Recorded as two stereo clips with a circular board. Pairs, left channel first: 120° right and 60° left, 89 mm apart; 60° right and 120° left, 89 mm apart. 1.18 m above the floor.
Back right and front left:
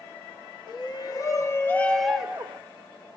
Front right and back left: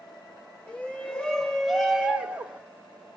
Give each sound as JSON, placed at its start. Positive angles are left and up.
{"t": 0.7, "sound": "a shout", "azimuth_deg": -135, "distance_m": 1.0}